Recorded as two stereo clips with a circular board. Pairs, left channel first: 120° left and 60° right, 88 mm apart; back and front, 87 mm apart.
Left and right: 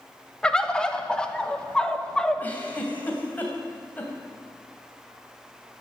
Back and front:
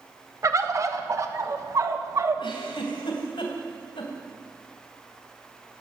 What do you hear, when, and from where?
0.4 s a bird: 40° left, 1.0 m
2.4 s a giggle: 170° right, 2.5 m